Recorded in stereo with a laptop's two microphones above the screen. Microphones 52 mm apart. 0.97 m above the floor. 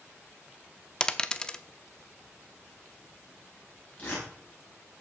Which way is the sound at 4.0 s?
35° left (ahead or behind).